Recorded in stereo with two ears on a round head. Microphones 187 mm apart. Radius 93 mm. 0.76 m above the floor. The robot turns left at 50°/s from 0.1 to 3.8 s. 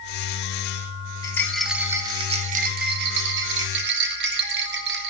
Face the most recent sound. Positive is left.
turn(degrees=-110)